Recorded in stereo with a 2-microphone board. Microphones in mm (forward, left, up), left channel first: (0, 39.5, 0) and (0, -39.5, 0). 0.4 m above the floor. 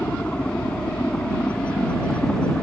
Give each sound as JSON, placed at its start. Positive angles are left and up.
{"t": 0.0, "sound": "a helicopter", "side_deg": 15}